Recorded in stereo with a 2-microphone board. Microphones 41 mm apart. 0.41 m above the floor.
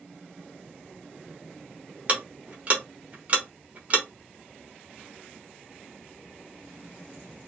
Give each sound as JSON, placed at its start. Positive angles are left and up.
{"t": 2.1, "sound": "ticking", "side_deg": -30, "distance_m": 0.9}